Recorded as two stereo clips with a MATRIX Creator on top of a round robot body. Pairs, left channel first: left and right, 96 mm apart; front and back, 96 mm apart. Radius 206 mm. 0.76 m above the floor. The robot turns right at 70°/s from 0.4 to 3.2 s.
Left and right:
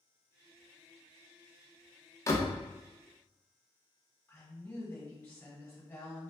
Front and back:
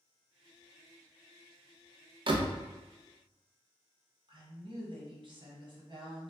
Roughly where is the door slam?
Behind left.